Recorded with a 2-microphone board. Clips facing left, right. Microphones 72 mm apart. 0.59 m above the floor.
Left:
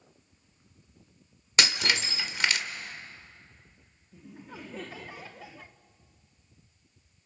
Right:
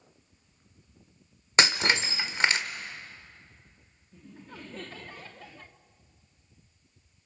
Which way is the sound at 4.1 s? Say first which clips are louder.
Left 1 dB; 10° left (ahead or behind).